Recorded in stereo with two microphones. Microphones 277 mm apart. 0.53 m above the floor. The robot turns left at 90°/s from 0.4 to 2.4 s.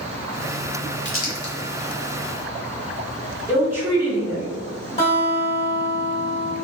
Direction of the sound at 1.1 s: 40° left (ahead or behind).